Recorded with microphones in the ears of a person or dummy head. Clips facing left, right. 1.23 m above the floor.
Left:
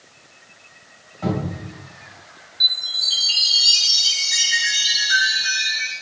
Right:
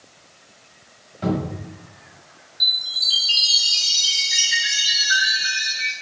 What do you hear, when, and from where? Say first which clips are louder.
1.2 s a cupboard door: right 1 dB; 25° right (ahead or behind), 1.2 m
2.6 s a chime: left 2 dB; 10° right (ahead or behind), 1.7 m